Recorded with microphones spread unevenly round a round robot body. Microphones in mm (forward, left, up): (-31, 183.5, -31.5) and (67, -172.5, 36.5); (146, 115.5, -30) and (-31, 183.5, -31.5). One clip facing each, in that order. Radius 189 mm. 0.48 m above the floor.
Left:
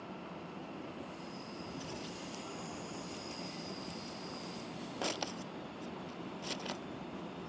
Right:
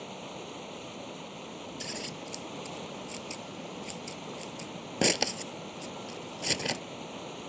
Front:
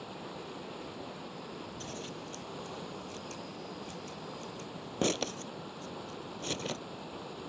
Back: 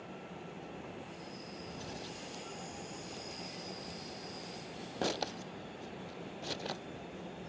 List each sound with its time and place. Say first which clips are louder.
0.0 s running water: right 4 dB, front 3 dB; 60° right
1.8 s scissors: right 3 dB, front 3 dB; 80° right